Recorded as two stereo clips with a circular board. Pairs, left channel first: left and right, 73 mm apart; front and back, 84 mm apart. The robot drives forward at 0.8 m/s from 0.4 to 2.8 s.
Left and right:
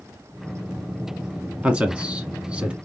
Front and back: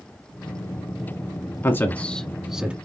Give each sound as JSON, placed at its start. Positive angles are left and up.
{"t": 1.6, "sound": "a man speaking", "azimuth_deg": -25, "distance_m": 1.2}